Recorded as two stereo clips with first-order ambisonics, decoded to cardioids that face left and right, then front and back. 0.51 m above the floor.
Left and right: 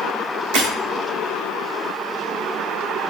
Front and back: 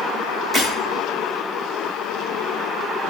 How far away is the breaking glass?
About 3.5 m.